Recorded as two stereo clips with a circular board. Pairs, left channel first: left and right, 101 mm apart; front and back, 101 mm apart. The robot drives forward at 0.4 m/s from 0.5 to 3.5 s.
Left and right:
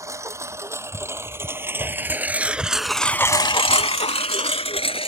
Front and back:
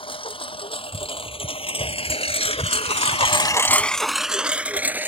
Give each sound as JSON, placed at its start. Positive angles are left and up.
{"t": 0.0, "sound": "a lawn mower", "azimuth_deg": -30}